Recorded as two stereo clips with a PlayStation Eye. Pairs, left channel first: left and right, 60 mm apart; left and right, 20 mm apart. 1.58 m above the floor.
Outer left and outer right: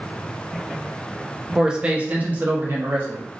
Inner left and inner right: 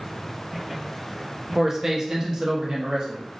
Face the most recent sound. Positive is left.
turn(degrees=-40)  # may be behind; listen again after turning